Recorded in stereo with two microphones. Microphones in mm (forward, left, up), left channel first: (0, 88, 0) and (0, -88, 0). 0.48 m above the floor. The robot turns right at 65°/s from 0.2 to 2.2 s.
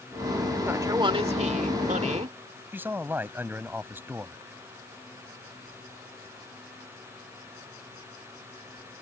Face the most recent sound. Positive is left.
turn(degrees=-10)  # may be behind; listen again after turning